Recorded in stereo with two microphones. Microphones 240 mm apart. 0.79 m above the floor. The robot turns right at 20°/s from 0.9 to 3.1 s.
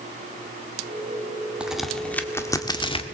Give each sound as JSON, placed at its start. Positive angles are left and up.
{"t": 1.6, "sound": "a crack", "side_deg": -5, "distance_m": 1.6}